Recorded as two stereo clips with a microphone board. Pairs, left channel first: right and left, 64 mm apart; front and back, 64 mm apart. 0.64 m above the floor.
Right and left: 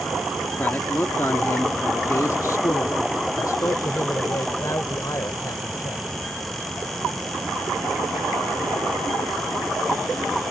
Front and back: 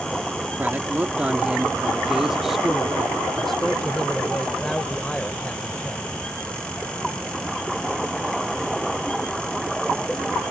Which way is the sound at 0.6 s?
135° right.